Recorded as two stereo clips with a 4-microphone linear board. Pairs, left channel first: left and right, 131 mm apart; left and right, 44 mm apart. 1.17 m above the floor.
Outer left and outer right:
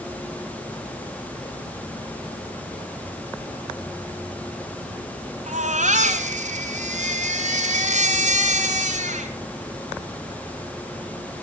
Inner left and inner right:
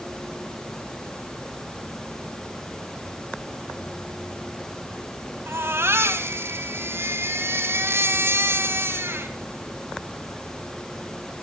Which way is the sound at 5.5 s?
65° right (ahead or behind).